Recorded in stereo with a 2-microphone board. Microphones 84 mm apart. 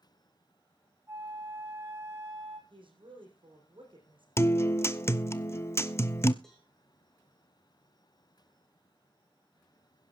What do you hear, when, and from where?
1.1 s a flute: 30° right (ahead or behind), 2 m
2.7 s a woman speaking: 80° right, 5.5 m
4.4 s a guitar: 30° left (ahead or behind), 0.5 m
6.4 s a cowbell: 5° left (ahead or behind), 3.5 m